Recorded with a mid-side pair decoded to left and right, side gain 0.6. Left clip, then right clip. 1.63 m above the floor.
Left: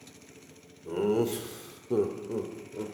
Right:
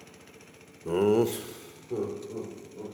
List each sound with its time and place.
0.8 s laughter: 45° right, 0.6 m; by 2.9 s 60° left, 1.3 m